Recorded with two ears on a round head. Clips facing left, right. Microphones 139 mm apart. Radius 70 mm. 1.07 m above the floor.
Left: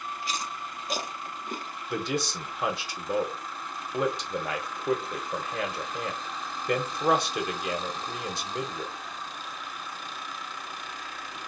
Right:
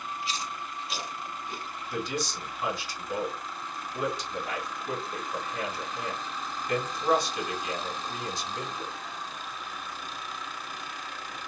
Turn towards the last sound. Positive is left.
turn(degrees=50)  # may be behind; listen again after turning